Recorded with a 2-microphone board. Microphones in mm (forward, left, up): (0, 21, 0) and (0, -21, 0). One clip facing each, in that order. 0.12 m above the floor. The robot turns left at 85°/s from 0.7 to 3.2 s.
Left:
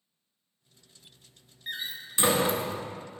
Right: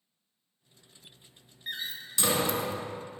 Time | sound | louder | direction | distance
1.7 | a door slam | left 1 dB | centre (ahead or behind) | 0.9 m